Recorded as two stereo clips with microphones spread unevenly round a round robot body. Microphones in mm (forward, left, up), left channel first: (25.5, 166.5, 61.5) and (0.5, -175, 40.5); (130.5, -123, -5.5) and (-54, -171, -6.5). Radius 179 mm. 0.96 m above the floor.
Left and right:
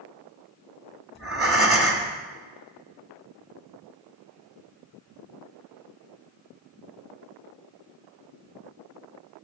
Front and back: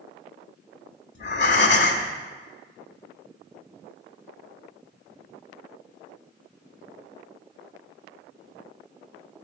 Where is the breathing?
5° right, 1.4 m.